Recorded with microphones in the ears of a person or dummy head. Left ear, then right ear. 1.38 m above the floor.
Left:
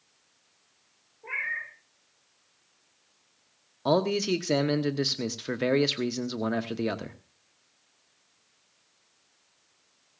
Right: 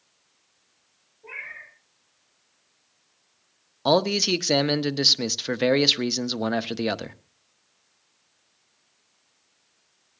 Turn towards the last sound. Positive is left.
turn(degrees=-25)  # may be behind; listen again after turning